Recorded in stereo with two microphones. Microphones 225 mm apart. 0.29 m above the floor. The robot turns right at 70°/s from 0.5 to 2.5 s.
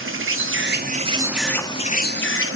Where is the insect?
65° right, 0.8 m; by 2.6 s 75° left, 0.8 m.